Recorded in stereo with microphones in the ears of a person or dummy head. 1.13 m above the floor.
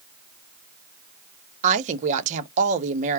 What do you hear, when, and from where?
1.6 s a woman speaking: 40° right (ahead or behind), 0.9 m